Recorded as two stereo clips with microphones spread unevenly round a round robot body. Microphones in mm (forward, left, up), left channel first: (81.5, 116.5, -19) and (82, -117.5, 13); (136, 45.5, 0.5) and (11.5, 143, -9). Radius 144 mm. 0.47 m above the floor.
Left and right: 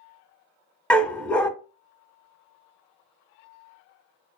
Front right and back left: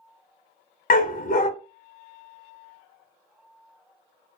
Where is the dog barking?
5° left, 0.6 m.